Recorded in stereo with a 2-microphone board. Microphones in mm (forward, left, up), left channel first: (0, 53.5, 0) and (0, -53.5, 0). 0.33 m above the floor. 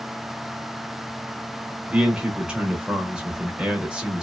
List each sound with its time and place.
1.9 s a man speaking: 10° right (ahead or behind), 0.9 m